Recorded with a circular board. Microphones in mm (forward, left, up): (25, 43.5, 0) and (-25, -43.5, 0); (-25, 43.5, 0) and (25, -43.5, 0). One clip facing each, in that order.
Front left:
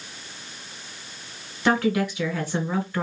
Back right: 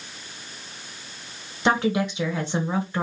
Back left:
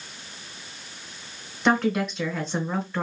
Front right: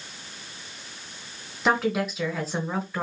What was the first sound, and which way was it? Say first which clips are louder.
A woman speaking: even, back left 1 dB; 140° right.